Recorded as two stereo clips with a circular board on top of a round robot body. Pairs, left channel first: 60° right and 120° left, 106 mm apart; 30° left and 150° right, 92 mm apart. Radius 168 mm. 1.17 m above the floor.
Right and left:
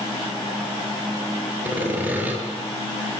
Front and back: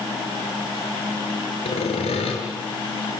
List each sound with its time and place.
1.6 s sawing: 45° left, 5.5 m